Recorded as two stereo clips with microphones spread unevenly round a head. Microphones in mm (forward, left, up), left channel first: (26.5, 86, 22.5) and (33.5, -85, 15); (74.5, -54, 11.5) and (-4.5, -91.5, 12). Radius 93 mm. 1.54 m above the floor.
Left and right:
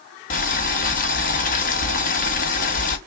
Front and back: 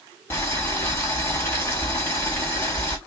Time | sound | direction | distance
0.3 | boiling | 90° left | 0.9 m